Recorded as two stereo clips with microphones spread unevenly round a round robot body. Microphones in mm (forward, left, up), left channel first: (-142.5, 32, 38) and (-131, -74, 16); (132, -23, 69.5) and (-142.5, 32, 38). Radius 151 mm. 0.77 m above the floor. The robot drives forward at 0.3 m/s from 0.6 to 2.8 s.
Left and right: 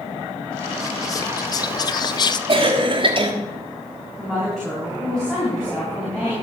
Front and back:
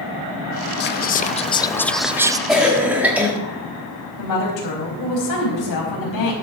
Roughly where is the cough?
Right.